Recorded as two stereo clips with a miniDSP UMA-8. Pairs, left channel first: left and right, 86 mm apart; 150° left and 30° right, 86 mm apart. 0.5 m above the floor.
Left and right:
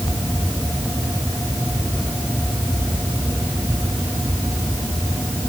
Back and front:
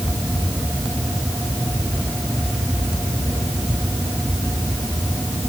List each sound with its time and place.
Only background noise.